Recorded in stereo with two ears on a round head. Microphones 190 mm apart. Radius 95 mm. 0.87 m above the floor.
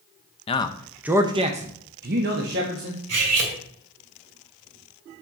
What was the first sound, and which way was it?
A man speaking, 25° left (ahead or behind).